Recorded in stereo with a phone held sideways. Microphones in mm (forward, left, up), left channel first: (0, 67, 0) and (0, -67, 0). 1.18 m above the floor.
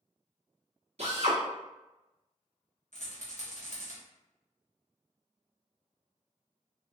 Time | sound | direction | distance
1.0 | a drill | 55° right (ahead or behind) | 1.2 m
2.9 | a rattle | 65° left (ahead or behind) | 1.2 m